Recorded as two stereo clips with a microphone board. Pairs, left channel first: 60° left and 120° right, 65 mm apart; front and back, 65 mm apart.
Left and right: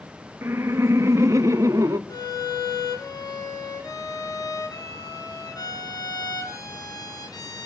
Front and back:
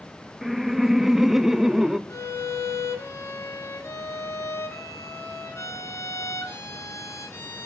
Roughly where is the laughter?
Right.